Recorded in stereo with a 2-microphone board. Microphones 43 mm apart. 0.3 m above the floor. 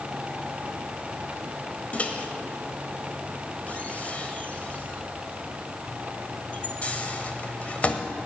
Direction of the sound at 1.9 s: 35° left (ahead or behind).